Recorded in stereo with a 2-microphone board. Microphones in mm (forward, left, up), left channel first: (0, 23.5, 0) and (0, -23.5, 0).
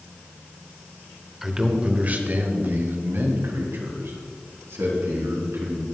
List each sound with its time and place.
1.4 s a man speaking: 5° right (ahead or behind), 1.0 m; by 5.8 s 80° right, 4 m